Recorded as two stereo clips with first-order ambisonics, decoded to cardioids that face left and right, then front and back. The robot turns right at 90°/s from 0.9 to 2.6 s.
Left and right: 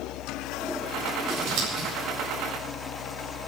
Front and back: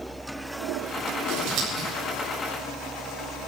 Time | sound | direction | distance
1.3 | scissors | 150° right | 8 m